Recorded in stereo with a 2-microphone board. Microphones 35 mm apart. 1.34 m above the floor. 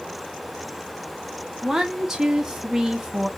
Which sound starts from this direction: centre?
A woman speaking, at 1.6 s.